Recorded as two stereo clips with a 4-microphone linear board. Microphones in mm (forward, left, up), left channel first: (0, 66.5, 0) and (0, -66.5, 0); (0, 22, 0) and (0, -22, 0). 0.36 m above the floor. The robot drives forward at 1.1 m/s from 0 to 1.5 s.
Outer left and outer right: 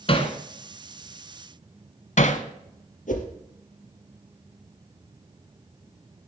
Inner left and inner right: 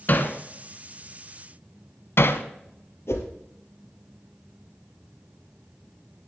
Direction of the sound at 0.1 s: 45° left (ahead or behind).